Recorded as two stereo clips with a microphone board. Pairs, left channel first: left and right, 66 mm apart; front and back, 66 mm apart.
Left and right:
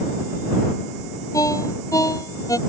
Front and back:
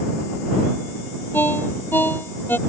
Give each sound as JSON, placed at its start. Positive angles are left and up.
{"t": 1.3, "sound": "a ringtone", "azimuth_deg": 60}